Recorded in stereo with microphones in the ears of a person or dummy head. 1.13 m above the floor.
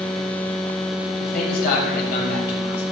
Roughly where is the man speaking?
Left.